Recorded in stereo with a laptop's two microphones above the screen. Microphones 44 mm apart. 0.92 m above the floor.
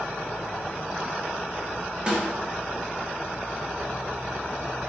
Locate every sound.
2.1 s a snare drum: 25° right (ahead or behind), 0.7 m